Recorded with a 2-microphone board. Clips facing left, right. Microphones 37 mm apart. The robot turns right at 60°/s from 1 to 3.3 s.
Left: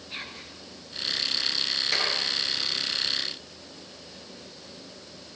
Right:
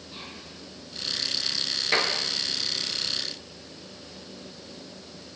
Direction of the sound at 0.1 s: 55° left (ahead or behind).